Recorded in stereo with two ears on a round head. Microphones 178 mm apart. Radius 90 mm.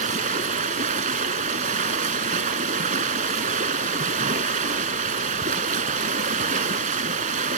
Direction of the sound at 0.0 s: 40° right (ahead or behind).